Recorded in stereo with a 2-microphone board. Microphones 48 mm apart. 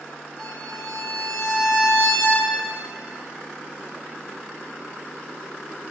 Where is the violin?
35° left (ahead or behind), 2.5 m.